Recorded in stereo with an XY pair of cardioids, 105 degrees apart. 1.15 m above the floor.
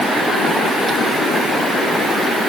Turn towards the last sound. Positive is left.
No sound to turn to.